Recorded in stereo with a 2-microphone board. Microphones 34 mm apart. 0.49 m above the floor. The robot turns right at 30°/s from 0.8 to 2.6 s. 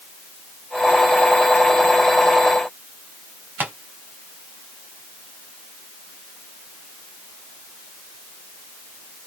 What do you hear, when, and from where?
3.6 s tapping: 60° right (ahead or behind), 1.8 m